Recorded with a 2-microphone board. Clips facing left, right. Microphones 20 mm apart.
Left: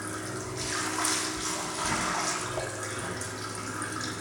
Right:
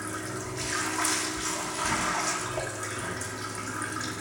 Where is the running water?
10° left (ahead or behind), 1.6 m.